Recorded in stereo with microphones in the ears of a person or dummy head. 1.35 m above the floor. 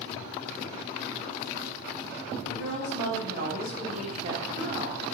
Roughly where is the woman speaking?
Right.